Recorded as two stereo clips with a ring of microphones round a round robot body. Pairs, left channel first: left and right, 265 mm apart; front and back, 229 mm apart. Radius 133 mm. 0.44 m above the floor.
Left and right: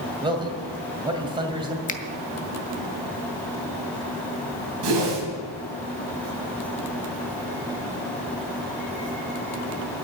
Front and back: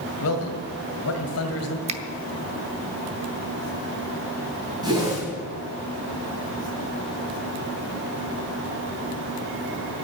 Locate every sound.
0.2 s a man speaking: 20° right, 2 m
1.9 s a finger snap: 135° left, 0.9 m
4.8 s a whoosh: 105° right, 3 m